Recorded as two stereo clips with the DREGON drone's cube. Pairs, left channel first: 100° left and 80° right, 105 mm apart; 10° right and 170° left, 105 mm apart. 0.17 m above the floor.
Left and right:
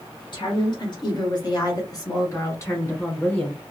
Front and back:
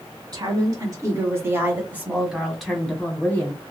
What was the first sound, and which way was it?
A woman speaking, 130° left.